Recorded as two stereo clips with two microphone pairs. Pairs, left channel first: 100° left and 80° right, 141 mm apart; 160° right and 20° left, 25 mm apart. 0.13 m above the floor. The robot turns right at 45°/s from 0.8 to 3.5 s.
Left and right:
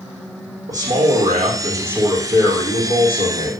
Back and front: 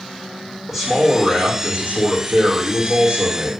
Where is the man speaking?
60° right, 5.5 m; by 3.5 s 65° left, 5.5 m.